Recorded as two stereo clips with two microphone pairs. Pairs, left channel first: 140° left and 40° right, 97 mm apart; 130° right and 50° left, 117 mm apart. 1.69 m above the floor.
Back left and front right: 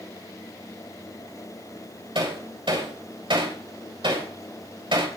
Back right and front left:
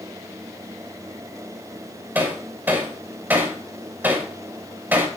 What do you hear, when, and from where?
2.1 s hammering: 20° right, 3 m